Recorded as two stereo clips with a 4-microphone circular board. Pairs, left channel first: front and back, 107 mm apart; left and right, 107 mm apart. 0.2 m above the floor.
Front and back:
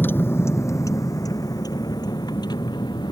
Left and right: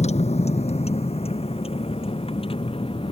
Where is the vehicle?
75° left; by 3.1 s 50° left.